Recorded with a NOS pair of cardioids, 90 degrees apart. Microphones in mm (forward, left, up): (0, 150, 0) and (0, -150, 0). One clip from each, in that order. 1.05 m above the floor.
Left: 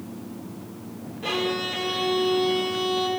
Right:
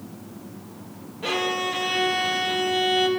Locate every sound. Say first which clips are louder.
1.2 s a violin: right 2 dB; 20° right, 1.3 m